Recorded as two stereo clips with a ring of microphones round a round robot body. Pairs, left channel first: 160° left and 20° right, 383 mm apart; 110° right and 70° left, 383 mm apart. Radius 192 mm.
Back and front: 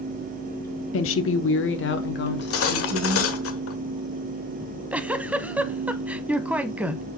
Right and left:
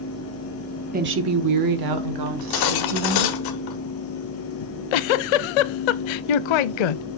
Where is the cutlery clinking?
145° right, 1.3 m.